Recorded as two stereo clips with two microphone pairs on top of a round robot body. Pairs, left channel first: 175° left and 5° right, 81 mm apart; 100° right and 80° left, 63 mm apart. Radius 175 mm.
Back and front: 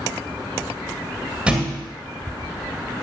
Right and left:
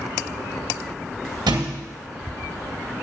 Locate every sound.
1.5 s a thud: 70° left, 1.7 m